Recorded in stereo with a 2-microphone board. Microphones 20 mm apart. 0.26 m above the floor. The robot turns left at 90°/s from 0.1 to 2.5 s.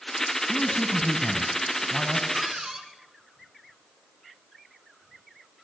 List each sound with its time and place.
0.5 s a man speaking: 125° left, 2 m; by 2.2 s 35° right, 2 m
2.3 s a cupboard door: 40° right (ahead or behind), 3 m; by 2.9 s 25° right (ahead or behind), 3 m